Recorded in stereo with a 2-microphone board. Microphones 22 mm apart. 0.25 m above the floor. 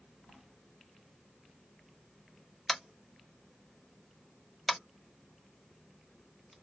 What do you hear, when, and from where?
2.7 s tapping: 10° left (ahead or behind), 1.1 m